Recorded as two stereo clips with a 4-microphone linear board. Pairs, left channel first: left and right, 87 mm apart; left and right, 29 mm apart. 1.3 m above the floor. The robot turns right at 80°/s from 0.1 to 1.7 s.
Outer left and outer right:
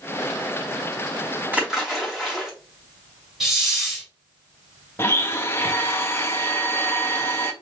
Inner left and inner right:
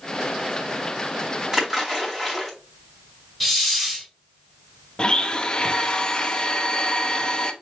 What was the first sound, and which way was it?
A splash, 20° right (ahead or behind).